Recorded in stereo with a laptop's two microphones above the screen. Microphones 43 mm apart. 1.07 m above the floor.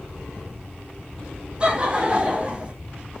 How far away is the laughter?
About 0.8 m.